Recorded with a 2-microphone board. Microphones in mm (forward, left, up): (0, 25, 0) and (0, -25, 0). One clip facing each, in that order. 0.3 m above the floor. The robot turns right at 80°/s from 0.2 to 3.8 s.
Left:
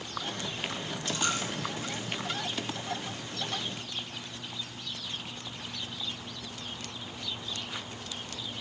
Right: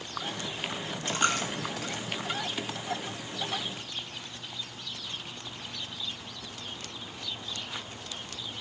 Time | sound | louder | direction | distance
1.1 | a dropped coin | right 4 dB | 35° right (ahead or behind) | 2.5 m